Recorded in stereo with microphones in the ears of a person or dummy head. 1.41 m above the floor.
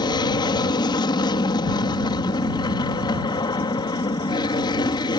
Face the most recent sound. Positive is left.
turn(degrees=20)  # may be behind; listen again after turning